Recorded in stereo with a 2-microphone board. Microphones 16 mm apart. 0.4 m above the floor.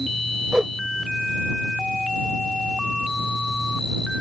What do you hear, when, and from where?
0.5 s a whoosh: 55° right (ahead or behind)